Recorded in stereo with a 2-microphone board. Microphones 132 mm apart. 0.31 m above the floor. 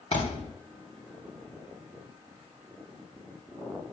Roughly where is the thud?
Left.